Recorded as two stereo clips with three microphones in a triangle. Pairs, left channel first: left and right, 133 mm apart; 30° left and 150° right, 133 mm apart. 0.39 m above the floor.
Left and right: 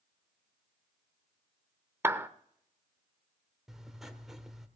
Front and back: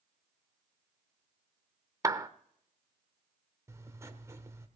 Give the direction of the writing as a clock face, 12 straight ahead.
6 o'clock.